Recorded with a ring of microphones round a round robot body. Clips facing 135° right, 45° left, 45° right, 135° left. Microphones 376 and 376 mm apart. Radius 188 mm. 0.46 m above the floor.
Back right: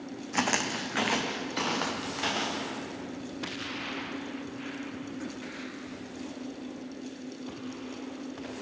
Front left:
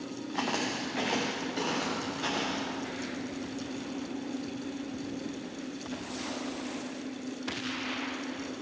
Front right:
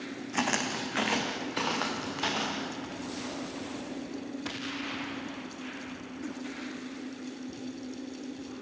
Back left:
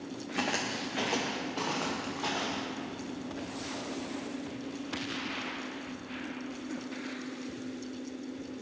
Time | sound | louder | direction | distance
0.3 | footsteps | back right 2 dB, front right 2 dB | 110° right | 1.5 m